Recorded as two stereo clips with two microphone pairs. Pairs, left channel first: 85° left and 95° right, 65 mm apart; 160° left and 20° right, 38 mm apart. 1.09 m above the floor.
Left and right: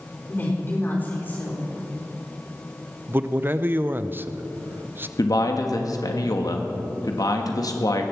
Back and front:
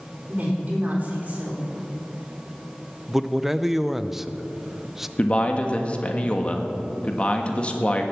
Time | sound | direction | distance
0.3 | a woman speaking | 30° left | 4 m
3.1 | a man speaking | 100° right | 0.5 m
5.2 | a man speaking | 105° left | 1.5 m